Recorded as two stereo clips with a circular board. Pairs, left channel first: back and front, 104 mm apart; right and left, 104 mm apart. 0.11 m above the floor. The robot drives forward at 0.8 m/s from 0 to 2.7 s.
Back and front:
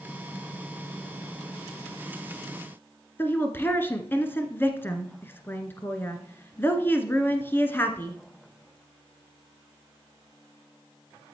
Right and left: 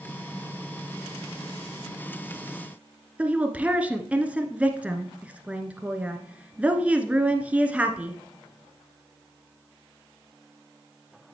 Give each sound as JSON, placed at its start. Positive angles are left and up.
{"t": 3.2, "sound": "a woman speaking", "azimuth_deg": 150, "distance_m": 1.1}